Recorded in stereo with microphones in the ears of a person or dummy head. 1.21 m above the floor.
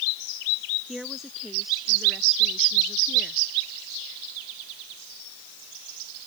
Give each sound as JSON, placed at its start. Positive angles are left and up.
{"t": 0.9, "sound": "a woman speaking", "side_deg": -5}